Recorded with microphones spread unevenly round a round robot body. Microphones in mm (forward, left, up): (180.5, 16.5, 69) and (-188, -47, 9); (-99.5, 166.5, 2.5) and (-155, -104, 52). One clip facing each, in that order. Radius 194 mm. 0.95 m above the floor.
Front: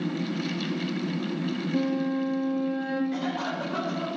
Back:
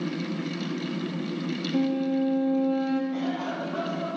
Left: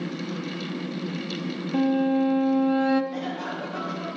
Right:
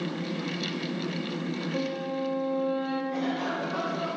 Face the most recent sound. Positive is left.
turn(degrees=-35)